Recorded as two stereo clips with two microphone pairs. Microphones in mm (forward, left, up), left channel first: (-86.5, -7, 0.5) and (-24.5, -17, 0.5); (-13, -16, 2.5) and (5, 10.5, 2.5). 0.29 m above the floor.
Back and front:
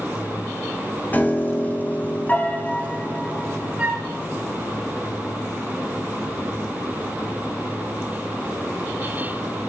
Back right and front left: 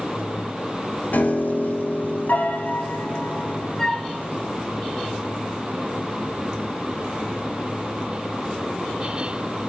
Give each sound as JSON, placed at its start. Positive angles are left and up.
{"t": 1.1, "sound": "a piano", "azimuth_deg": -130, "distance_m": 0.9}
{"t": 3.8, "sound": "a flute", "azimuth_deg": -60, "distance_m": 1.2}